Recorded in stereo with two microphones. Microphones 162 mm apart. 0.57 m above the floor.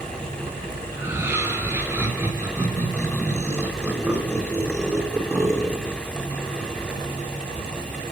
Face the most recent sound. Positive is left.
turn(degrees=-15)  # may be behind; listen again after turning